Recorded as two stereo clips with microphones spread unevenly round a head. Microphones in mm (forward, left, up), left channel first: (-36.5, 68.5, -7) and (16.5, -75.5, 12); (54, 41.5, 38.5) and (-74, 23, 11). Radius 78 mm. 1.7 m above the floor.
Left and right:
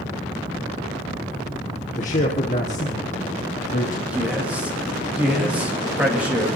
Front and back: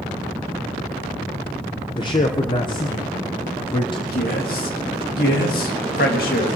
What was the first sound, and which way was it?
A man speaking, 60° left.